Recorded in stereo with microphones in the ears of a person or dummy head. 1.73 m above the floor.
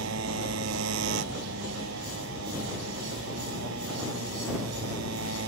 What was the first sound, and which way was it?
A motorcycle, 70° right (ahead or behind).